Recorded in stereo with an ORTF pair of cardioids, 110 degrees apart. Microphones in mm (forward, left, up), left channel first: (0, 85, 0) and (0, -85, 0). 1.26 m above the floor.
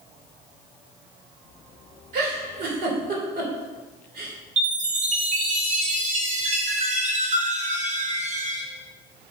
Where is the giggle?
65° right, 3 m.